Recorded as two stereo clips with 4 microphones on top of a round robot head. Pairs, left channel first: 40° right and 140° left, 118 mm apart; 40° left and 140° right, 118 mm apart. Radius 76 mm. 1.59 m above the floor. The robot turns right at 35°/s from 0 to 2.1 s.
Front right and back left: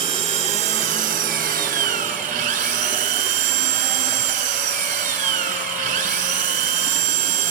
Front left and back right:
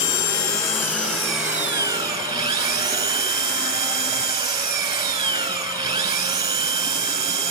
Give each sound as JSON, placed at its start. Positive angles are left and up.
{"t": 0.0, "sound": "an engine running", "azimuth_deg": 85, "distance_m": 2.5}